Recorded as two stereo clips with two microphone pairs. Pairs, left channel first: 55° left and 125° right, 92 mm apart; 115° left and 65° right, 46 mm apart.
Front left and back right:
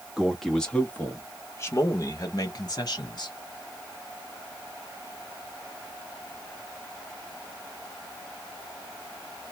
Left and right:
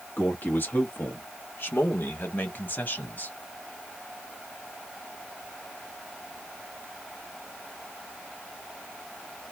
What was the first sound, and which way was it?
A man speaking, 150° left.